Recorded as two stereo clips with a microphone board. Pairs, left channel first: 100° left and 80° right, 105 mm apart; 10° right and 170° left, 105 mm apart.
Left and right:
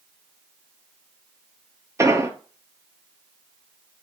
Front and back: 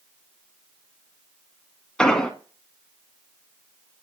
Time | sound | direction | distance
2.0 | an explosion | 85° right | 0.6 m